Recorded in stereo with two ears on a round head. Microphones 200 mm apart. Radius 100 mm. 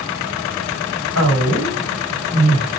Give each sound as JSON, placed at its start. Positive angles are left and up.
{"t": 1.1, "sound": "a woman speaking", "side_deg": 65, "distance_m": 1.8}